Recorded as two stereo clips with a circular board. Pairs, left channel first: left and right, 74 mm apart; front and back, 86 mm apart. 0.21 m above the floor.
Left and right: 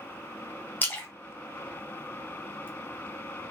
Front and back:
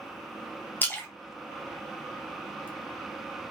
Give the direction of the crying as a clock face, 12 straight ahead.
I don't hear crying.